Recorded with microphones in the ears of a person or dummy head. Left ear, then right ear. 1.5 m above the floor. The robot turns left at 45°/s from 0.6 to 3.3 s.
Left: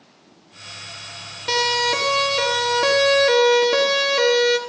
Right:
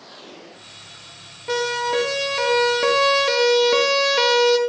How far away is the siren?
About 4.5 m.